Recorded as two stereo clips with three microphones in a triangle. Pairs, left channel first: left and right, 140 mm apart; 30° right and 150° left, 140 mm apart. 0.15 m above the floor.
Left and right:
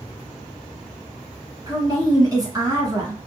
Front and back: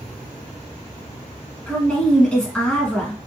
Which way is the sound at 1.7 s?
105° right.